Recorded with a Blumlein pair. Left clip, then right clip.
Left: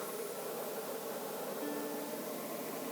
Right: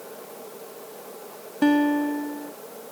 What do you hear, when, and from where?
1.6 s a guitar: 50° right